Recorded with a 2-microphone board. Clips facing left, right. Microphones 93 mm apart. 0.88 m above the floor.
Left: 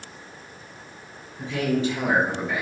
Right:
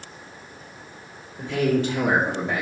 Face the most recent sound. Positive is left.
turn(degrees=-75)  # may be behind; listen again after turning